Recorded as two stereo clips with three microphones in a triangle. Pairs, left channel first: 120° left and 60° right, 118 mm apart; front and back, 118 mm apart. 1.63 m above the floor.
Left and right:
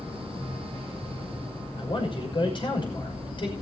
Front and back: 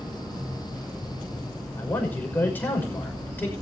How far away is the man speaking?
About 6 m.